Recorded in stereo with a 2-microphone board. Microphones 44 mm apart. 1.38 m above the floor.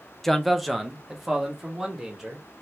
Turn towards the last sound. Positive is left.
turn(degrees=-10)  # may be behind; listen again after turning